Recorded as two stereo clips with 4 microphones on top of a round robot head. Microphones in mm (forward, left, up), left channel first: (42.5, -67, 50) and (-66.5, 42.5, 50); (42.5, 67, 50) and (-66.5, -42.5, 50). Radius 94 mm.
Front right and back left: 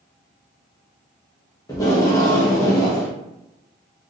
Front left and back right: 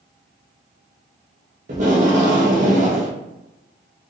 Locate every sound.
1.7 s tape being pulled: 110° right, 0.6 m